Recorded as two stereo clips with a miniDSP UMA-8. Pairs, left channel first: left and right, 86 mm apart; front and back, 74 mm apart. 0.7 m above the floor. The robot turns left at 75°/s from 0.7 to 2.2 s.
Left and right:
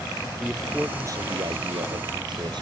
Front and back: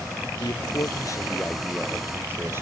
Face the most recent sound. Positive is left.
turn(degrees=-120)